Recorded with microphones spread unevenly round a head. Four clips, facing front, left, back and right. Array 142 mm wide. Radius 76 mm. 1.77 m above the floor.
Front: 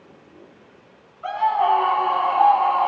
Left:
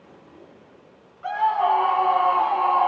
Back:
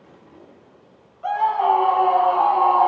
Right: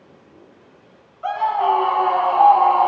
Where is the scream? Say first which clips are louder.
Right 2 dB, back 1 dB; 105° right, 2.5 m; by 2.9 s 120° right, 1.5 m.